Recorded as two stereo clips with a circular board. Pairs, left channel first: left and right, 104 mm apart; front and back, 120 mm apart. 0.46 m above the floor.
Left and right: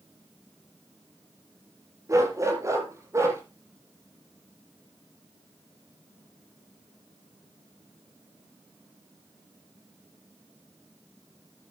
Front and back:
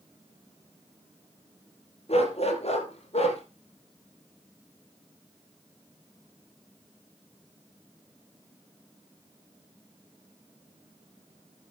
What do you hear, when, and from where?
2.1 s a dog barking: 30° right, 4.5 m